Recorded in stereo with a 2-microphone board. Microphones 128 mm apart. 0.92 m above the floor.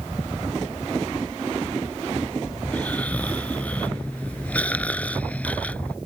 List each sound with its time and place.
2.6 s snoring: 10° left (ahead or behind)